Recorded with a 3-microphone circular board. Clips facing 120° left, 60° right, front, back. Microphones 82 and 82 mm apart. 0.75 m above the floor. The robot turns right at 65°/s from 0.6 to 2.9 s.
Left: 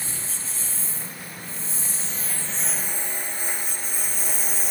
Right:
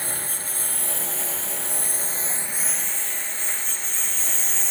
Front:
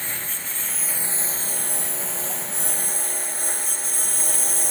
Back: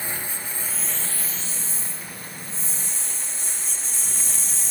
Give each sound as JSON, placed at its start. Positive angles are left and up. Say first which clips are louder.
{"t": 0.0, "sound": "a lawn mower", "louder": "right 4 dB, back 1 dB", "azimuth_deg": -100}